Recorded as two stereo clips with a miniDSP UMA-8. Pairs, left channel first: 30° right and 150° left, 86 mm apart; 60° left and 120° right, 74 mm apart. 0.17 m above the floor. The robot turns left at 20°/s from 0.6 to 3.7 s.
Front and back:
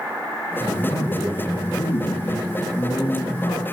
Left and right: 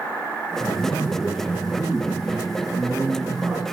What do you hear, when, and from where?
0.7 s a man speaking: 20° right, 9 m; by 3.6 s 80° right, 9 m